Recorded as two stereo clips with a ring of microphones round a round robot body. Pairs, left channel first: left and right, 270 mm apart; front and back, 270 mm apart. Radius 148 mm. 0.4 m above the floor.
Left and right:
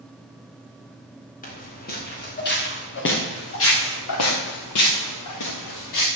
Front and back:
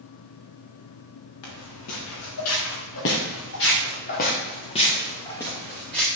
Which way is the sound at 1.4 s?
30° left.